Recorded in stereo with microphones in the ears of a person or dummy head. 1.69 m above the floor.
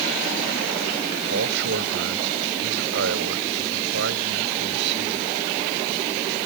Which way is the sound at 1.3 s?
65° right (ahead or behind).